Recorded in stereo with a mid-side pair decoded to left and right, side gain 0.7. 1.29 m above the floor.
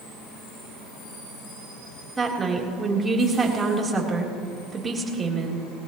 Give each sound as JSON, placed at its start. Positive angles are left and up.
{"t": 2.2, "sound": "a woman speaking", "azimuth_deg": -20, "distance_m": 3.5}